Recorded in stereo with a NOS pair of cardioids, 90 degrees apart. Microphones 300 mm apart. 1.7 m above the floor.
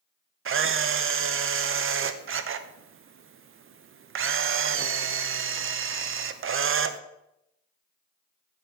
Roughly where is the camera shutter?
Ahead right.